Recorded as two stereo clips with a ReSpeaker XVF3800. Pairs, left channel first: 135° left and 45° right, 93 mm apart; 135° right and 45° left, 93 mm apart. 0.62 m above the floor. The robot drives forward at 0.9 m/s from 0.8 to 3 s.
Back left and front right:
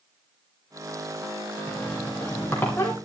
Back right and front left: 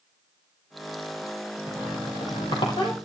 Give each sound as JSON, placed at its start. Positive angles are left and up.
{"t": 1.7, "sound": "a squeak", "azimuth_deg": -150, "distance_m": 2.5}